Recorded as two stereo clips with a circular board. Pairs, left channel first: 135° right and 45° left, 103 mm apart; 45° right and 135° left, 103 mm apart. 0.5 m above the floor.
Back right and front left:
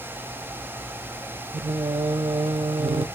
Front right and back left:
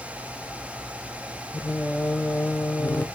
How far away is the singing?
About 0.5 m.